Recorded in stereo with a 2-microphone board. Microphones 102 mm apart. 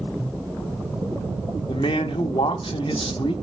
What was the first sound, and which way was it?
A man speaking, 60° left (ahead or behind).